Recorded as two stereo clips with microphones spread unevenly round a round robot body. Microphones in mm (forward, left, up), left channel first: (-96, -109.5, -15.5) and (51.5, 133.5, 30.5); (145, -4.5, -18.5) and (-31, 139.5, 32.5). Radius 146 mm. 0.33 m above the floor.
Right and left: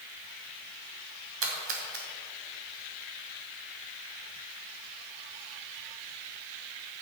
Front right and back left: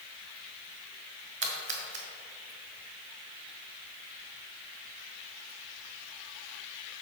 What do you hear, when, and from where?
1.4 s a splash: 105° left, 2 m